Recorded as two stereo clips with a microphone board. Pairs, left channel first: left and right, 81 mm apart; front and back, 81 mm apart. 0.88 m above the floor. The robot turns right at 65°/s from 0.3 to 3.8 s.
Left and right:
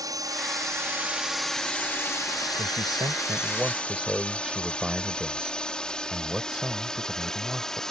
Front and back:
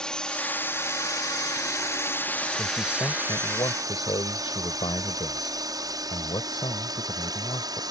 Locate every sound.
0.0 s a drone: 80° right; by 7.9 s 175° left
2.6 s a man speaking: 90° right; by 7.8 s 10° right